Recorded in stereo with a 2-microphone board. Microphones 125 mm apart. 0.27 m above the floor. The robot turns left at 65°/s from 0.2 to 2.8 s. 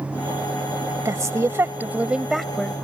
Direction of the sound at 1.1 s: 25° right (ahead or behind).